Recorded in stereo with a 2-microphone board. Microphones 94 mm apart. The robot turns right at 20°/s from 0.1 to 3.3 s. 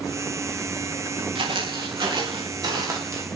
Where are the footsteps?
70° right (ahead or behind), 9.5 m; by 3.2 s 35° right (ahead or behind), 8 m.